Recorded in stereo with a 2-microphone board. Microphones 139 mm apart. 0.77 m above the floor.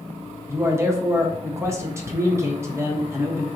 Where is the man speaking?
20° right (ahead or behind), 0.6 m.